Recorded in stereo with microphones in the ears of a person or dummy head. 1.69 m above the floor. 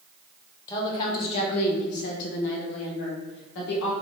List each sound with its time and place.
0.7 s a woman speaking: 20° left (ahead or behind), 0.8 m; by 3.9 s 70° left (ahead or behind), 1.9 m